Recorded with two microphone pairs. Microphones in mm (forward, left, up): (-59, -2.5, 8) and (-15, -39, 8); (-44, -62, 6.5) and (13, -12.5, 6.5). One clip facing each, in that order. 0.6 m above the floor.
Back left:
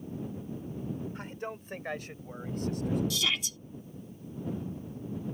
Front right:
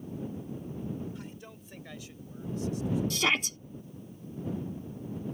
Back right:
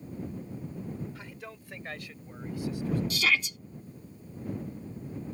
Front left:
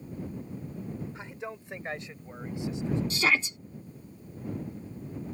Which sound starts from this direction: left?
A man speaking, at 1.1 s.